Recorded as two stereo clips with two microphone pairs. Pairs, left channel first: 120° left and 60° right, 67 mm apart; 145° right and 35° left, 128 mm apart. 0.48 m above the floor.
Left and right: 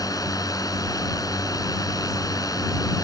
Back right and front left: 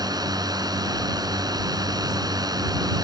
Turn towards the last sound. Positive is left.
turn(degrees=95)